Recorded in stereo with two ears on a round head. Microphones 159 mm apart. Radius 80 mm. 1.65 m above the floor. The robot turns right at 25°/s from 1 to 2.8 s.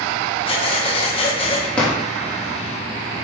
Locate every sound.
0.5 s breathing: 30° left (ahead or behind), 0.8 m
1.8 s a drawer: 5° left (ahead or behind), 1.1 m